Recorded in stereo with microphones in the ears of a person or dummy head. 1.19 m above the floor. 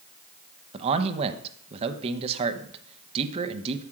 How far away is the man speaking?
About 0.9 m.